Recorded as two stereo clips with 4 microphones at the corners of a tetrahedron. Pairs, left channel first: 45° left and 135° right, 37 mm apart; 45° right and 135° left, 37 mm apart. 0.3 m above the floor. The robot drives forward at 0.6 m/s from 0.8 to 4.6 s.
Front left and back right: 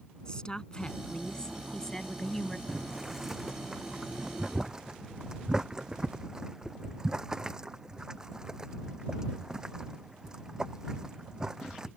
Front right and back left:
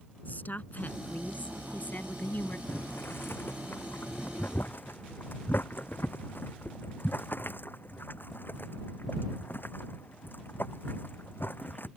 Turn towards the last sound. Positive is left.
turn(degrees=-65)